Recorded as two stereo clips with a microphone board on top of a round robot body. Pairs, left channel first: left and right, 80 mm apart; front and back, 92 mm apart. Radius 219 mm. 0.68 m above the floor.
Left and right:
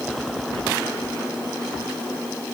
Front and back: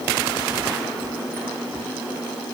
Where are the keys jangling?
I don't hear keys jangling.